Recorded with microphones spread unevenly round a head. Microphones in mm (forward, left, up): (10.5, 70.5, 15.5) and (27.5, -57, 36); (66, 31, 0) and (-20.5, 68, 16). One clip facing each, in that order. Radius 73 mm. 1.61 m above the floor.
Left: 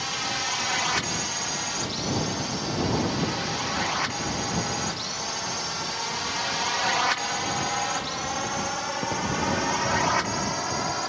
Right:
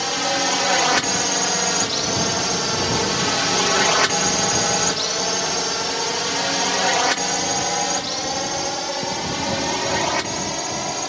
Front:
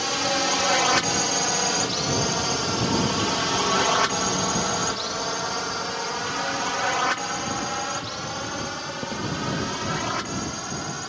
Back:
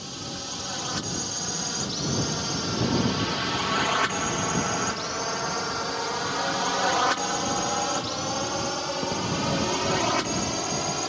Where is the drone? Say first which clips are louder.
Right 10 dB, front 13 dB; 55° right; by 11.1 s 150° right.